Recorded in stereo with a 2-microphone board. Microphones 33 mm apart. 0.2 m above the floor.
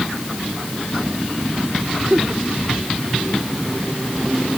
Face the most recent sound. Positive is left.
turn(degrees=-40)  # may be behind; listen again after turning